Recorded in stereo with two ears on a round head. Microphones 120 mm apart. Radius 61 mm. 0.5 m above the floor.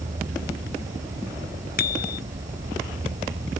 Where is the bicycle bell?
70° left (ahead or behind).